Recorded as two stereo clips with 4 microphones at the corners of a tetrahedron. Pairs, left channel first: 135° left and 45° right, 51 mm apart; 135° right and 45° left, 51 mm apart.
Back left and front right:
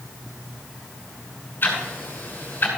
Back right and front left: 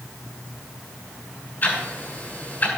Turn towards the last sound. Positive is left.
turn(degrees=180)